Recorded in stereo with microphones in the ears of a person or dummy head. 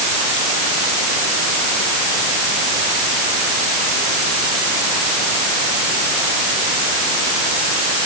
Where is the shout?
I don't hear a shout.